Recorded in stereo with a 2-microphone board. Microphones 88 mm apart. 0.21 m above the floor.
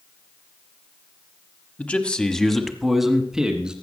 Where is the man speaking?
20° left (ahead or behind), 1.0 m; by 3.7 s 10° right (ahead or behind), 1.9 m.